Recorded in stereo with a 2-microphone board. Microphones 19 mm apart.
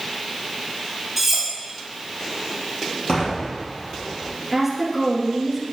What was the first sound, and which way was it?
Cutlery clinking, 5° right (ahead or behind).